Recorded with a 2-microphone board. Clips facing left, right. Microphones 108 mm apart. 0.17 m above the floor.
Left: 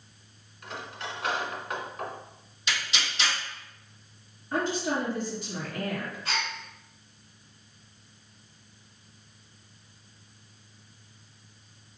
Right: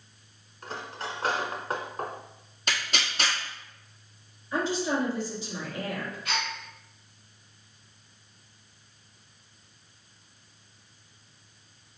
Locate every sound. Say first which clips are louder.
0.6 s cutlery clinking: right 2 dB; 35° right (ahead or behind), 0.8 m
2.7 s tearing paper: right 1 dB; 50° right (ahead or behind), 1.4 m
4.5 s a woman speaking: right 1 dB; 55° left (ahead or behind), 2.5 m
6.2 s a gasp: even; 35° left (ahead or behind), 2 m